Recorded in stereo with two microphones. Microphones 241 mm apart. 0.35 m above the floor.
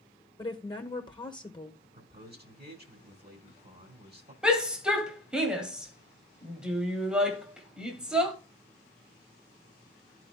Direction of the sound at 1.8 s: 45° right (ahead or behind).